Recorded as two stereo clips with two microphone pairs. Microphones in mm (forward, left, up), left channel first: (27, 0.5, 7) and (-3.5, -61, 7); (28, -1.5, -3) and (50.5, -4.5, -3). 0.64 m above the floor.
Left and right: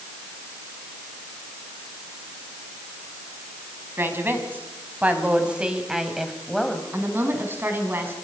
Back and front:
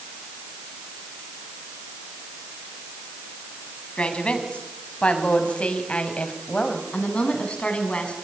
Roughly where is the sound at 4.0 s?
Behind.